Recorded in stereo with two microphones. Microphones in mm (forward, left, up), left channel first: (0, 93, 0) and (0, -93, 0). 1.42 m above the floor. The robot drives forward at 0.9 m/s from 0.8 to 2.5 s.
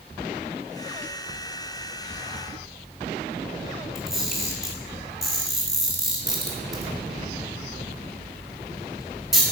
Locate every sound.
4.0 s a camera shutter: centre (ahead or behind), 5 m